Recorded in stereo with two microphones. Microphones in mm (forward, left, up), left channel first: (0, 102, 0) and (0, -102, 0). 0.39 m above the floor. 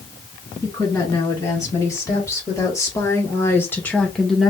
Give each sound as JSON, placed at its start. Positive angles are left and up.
{"t": 0.6, "sound": "a woman speaking", "side_deg": 15, "distance_m": 3.0}